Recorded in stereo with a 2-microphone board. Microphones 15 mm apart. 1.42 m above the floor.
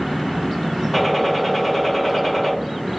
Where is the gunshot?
10° left (ahead or behind), 1.4 m.